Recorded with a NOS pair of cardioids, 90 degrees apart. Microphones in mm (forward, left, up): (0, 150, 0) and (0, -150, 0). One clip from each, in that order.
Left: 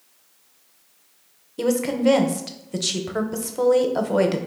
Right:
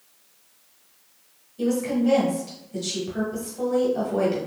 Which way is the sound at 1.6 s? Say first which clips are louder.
Left 3 dB; 65° left.